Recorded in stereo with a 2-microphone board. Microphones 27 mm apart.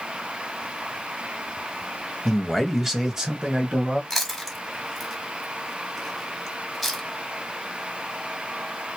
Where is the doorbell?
I don't hear a doorbell.